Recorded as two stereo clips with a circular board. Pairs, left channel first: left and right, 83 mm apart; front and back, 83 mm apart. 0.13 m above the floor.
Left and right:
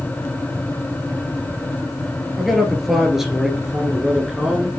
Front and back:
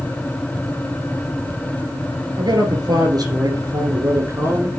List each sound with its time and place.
2.4 s a man speaking: straight behind, 2.5 m; by 4.7 s 160° right, 1.4 m